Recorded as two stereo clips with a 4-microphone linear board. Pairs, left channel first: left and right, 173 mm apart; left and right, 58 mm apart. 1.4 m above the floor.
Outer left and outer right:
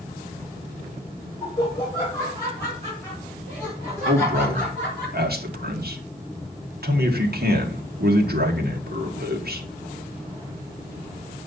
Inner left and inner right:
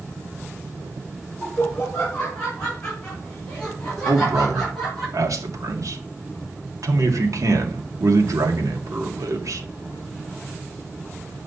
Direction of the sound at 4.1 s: 70° right (ahead or behind).